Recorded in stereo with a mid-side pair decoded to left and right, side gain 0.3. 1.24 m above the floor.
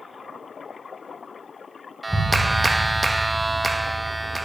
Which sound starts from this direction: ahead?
A clap, at 2.0 s.